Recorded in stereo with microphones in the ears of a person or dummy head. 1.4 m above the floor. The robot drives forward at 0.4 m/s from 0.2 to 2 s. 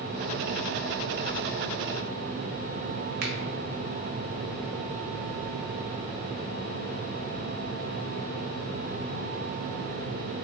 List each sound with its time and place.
3.2 s a finger snap: 50° right (ahead or behind), 0.6 m